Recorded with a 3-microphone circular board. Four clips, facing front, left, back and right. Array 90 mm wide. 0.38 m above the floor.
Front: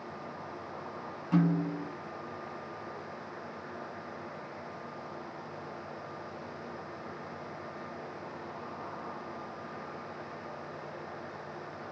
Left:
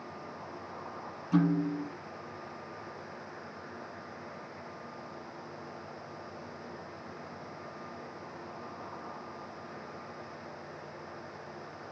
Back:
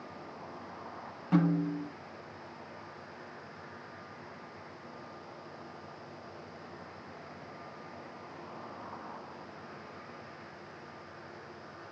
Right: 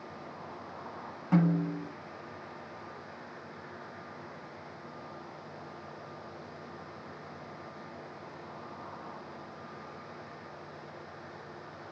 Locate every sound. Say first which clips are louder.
1.3 s a snare drum: even, even; 110° right, 8 m